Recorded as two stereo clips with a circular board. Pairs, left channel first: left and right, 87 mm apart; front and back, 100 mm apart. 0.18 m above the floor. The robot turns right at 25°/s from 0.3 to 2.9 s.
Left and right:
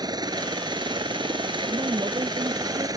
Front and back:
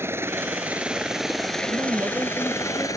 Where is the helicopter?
115° right; by 3.0 s 50° right.